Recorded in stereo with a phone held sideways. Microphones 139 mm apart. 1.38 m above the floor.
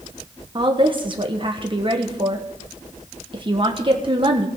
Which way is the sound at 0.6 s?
35° right (ahead or behind).